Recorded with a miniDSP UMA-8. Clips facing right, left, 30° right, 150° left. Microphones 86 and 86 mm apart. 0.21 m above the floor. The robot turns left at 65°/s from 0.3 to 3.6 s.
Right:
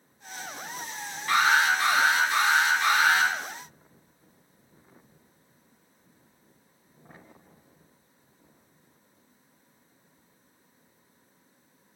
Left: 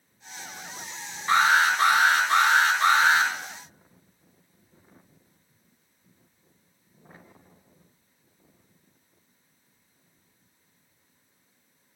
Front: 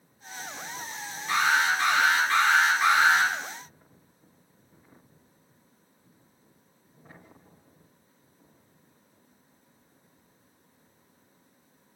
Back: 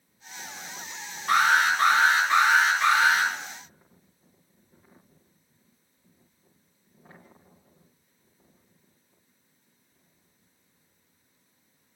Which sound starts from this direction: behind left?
An alarm, at 1.3 s.